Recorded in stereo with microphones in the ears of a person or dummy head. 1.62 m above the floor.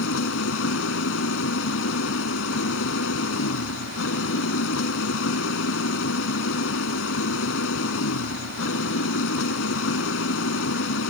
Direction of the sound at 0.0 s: 85° left.